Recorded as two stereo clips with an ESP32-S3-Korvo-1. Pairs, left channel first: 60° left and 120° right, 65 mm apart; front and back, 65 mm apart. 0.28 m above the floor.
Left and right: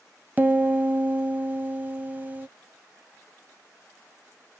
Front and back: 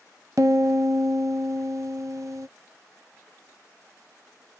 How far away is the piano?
About 0.5 m.